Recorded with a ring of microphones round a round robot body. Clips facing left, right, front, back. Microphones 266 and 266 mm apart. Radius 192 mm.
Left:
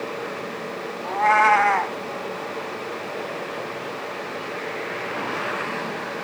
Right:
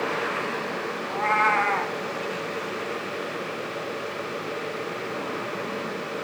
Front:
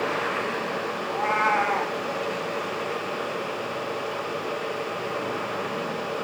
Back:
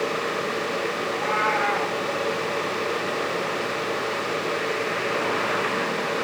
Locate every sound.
1.0 s a cat meowing: 55° left, 1.3 m